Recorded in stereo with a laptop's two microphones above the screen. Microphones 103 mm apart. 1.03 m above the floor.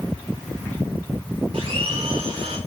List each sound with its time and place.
1.5 s a blender: 70° right (ahead or behind), 3 m